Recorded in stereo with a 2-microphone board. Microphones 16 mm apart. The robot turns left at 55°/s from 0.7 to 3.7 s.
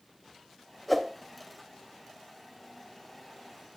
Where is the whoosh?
Centre (ahead or behind), 0.9 m; by 1.1 s 5° right (ahead or behind), 0.9 m.